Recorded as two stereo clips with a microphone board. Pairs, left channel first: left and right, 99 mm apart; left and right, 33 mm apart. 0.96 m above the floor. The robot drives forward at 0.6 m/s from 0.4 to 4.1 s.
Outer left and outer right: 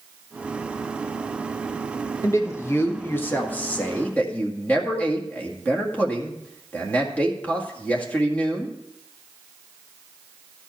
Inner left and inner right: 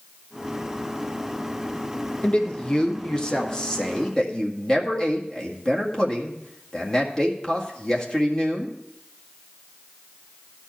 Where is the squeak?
No squeak in this recording.